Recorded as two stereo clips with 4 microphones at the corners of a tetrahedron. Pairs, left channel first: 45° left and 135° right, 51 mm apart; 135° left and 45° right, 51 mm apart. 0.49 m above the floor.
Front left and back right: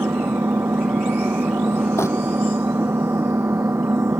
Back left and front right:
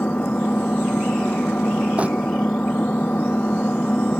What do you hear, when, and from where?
0.0 s an engine running: 170° right
2.0 s crumpling: 20° left